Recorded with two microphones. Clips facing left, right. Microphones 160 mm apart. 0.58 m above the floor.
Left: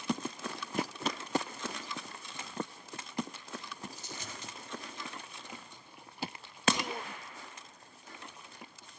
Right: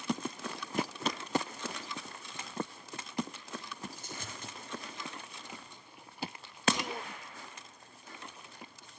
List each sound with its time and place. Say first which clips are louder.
4.0 s a dropped coin: even; 50° right (ahead or behind), 4.5 m